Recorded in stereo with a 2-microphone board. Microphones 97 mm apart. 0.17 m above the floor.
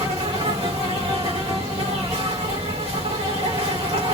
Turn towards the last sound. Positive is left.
turn(degrees=-80)